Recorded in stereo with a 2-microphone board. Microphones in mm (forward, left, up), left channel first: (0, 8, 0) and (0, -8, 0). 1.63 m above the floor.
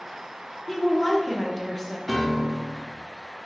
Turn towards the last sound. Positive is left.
turn(degrees=0)  # may be behind; listen again after turning